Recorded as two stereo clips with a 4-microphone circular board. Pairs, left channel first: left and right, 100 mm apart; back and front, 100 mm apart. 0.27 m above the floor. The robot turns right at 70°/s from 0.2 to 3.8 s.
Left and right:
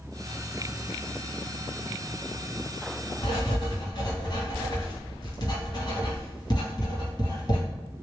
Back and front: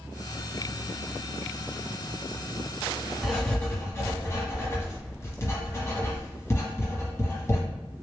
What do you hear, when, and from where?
3.2 s writing: 85° left, 1.1 m; by 7.6 s 125° left, 1.1 m